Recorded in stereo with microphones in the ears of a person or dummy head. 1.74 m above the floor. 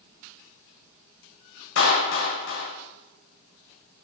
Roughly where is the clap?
Left.